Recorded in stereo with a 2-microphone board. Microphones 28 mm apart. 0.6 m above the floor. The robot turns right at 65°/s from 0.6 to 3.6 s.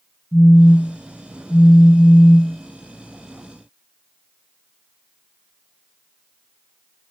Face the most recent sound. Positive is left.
turn(degrees=-155)